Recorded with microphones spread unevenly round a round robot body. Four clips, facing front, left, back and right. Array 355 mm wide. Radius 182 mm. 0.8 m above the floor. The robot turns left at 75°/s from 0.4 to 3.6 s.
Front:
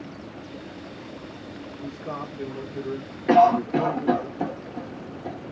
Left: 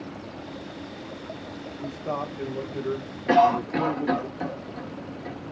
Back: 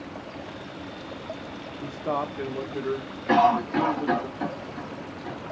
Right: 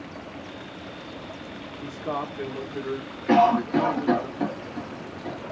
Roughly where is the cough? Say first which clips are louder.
Right 1 dB, front 3 dB; ahead.